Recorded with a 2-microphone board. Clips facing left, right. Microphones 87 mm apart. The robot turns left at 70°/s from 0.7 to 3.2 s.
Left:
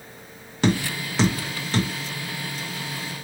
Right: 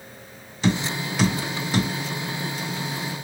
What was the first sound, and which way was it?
Tapping, 60° left (ahead or behind).